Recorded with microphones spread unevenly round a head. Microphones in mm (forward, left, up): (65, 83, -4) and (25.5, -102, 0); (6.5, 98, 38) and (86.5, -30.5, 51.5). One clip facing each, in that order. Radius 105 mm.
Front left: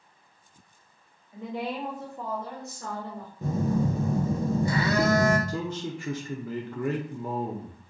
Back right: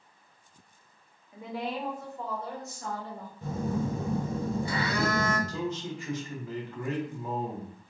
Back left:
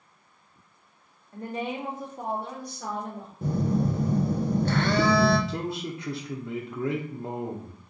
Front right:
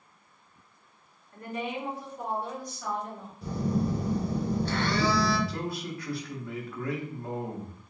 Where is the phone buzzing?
120° left, 0.6 m.